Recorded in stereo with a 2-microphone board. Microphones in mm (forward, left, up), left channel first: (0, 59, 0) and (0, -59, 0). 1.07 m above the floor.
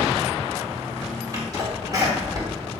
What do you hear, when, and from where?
1.3 s a sneeze: 35° right (ahead or behind), 1.8 m